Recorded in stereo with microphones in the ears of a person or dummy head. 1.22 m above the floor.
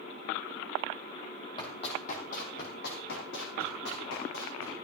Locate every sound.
1.6 s running footsteps: 30° left (ahead or behind), 2.5 m; by 4.7 s 75° left (ahead or behind), 4.5 m